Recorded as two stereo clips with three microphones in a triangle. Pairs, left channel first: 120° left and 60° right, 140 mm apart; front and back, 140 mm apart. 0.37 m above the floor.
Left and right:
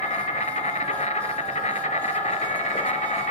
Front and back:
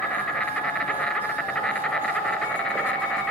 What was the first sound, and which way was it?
An insect, 85° left.